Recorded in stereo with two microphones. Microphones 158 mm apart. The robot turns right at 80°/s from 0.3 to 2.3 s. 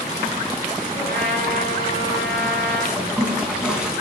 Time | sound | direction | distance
0.9 | a trumpet | 110° right | 8.5 m
3.0 | a toilet flushing | 5° right (ahead or behind) | 5 m